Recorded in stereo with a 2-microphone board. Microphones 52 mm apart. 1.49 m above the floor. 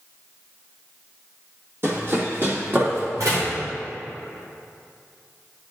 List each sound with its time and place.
1.8 s running footsteps: 45° right (ahead or behind), 2 m; by 3.1 s 40° right (ahead or behind), 3 m
3.2 s a door slam: 80° right, 2.5 m